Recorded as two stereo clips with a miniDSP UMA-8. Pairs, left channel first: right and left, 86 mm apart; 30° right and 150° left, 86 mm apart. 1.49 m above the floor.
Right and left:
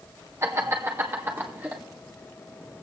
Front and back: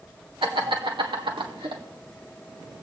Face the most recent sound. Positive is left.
turn(degrees=160)